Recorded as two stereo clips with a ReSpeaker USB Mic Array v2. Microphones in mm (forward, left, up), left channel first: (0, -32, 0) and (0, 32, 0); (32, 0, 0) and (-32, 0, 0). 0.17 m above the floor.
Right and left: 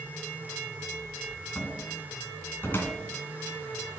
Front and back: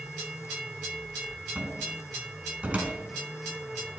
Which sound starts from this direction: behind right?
A cupboard door, at 1.6 s.